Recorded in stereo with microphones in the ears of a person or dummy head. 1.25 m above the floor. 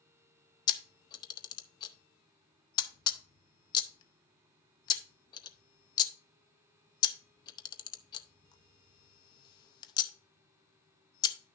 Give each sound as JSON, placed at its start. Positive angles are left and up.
{"t": 0.7, "sound": "a camera shutter", "side_deg": 25, "distance_m": 0.7}